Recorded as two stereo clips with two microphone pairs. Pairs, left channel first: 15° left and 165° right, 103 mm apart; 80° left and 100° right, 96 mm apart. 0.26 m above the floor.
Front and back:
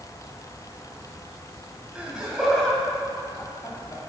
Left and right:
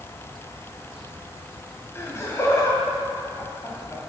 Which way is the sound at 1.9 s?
125° left.